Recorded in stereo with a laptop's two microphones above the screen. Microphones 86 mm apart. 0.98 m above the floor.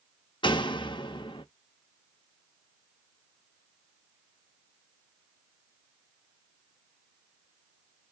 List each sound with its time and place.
0.4 s a door slam: 65° left (ahead or behind), 0.5 m